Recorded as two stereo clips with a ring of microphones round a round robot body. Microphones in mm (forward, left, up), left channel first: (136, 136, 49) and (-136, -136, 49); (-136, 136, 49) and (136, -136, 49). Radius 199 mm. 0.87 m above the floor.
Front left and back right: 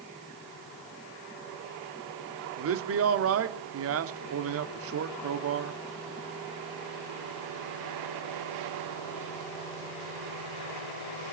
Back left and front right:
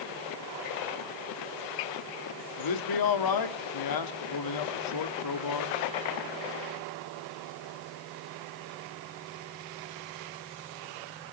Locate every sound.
2.6 s a man speaking: 170° left, 2 m